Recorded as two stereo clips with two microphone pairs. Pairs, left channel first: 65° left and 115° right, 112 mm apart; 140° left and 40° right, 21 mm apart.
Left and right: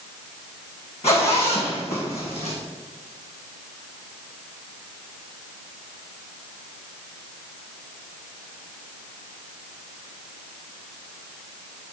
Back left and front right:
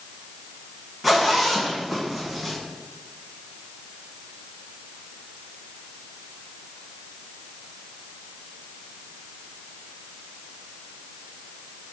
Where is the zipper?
45° left, 3 m.